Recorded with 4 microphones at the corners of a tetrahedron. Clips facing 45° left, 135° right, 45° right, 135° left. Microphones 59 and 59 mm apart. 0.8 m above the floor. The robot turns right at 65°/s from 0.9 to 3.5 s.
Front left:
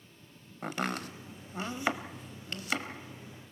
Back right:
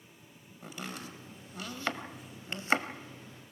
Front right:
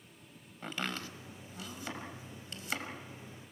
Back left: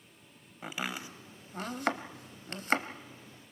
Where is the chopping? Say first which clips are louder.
Front left 8 dB, back left 1 dB; 55° left, 1.1 m; by 2.9 s 175° right, 1.1 m.